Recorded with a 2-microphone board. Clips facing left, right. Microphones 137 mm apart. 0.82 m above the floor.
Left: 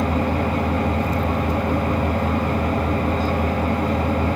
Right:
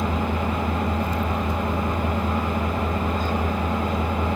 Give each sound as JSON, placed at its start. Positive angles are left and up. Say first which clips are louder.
{"t": 0.0, "sound": "an engine running", "louder": "left 4 dB", "side_deg": 70, "distance_m": 7.0}